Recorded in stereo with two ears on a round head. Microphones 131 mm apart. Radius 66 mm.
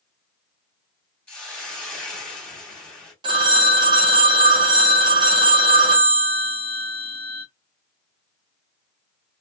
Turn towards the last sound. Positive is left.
turn(degrees=-35)  # may be behind; listen again after turning